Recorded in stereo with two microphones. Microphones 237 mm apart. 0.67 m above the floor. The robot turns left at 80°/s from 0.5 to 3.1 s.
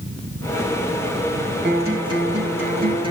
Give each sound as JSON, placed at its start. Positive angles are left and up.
{"t": 1.6, "sound": "a guitar", "azimuth_deg": -45, "distance_m": 6.5}